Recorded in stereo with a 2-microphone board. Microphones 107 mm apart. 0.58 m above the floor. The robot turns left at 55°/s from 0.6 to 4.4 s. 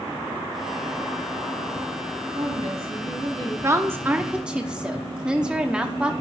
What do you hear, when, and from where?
2.3 s a woman speaking: 70° right, 5 m; by 3.5 s 135° right, 5 m
3.6 s a woman speaking: 120° right, 0.9 m; by 6.1 s 165° right, 0.9 m